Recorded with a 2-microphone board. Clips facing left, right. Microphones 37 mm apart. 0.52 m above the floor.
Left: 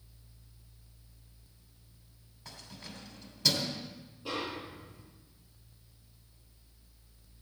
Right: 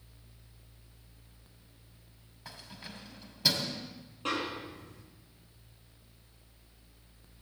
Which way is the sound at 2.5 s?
20° right (ahead or behind).